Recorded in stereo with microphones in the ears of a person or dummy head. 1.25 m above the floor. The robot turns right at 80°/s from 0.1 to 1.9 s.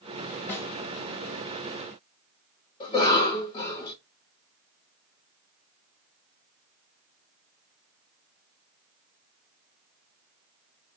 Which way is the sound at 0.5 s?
20° left (ahead or behind).